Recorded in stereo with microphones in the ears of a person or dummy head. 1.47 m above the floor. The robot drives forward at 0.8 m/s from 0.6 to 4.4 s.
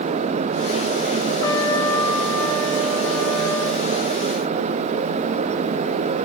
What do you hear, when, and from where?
1.4 s a trumpet: 20° left (ahead or behind), 1.5 m; by 3.8 s 10° left (ahead or behind), 3.5 m